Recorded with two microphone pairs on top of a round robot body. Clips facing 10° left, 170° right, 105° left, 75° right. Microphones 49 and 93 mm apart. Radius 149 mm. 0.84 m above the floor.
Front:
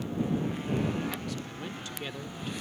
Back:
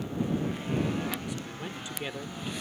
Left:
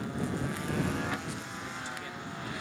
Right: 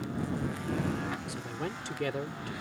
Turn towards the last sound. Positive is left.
turn(degrees=-95)